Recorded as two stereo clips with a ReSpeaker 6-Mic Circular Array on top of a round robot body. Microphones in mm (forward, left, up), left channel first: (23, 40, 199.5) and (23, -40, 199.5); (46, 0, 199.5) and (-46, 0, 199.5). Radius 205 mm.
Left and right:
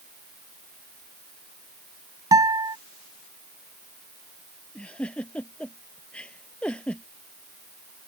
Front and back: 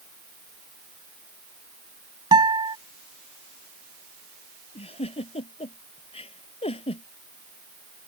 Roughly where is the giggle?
Ahead.